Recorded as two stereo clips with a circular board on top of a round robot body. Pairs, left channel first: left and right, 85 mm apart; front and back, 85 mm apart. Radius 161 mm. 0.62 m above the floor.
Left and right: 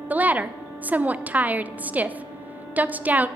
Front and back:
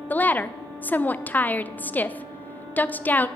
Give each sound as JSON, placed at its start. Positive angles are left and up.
{"t": 0.1, "sound": "a woman speaking", "azimuth_deg": -45, "distance_m": 0.5}